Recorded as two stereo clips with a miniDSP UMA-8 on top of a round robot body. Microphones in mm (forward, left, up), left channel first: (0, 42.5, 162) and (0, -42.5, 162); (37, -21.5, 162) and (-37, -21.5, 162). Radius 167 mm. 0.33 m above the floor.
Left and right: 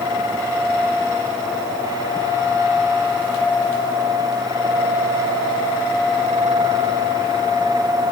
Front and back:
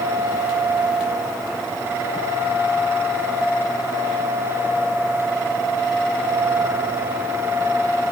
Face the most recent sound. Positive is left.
No sound to turn to.